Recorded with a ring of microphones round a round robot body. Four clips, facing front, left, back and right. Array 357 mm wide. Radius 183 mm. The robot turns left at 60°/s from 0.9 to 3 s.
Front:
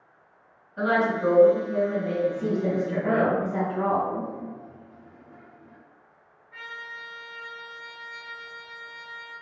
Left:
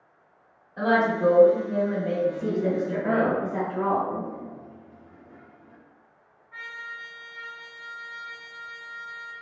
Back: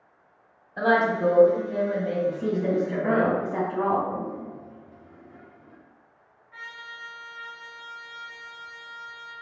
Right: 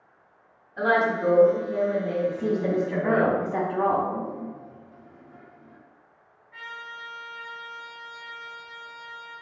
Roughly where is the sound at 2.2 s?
Ahead right.